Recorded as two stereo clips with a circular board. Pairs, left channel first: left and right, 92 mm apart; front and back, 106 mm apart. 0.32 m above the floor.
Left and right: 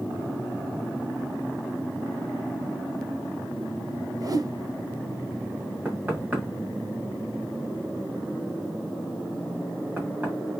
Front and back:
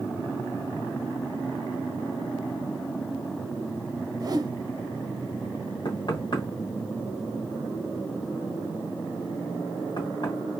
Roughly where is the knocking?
Ahead right.